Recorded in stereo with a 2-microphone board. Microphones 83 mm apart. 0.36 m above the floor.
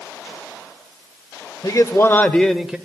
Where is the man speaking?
45° left (ahead or behind), 1.1 m; by 2.8 s 10° right (ahead or behind), 1.0 m.